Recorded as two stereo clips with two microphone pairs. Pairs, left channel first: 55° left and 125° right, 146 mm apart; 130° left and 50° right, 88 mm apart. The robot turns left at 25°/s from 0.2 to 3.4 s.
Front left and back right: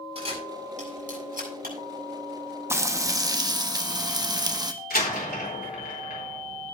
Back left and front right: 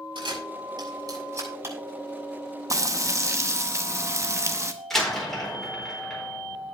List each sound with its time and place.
0.1 s a camera shutter: 75° right, 6 m; by 1.8 s 115° right, 6 m
2.7 s frying: 65° right, 0.9 m; by 4.7 s 80° right, 0.9 m
4.9 s a door slam: 45° left, 4 m